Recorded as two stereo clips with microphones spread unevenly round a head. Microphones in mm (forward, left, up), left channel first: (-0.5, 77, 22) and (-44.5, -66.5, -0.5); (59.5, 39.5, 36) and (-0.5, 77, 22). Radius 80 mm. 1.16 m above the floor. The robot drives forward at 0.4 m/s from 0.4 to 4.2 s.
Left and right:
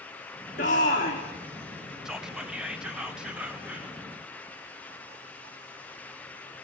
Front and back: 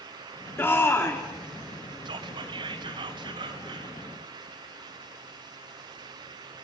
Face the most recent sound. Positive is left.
turn(degrees=170)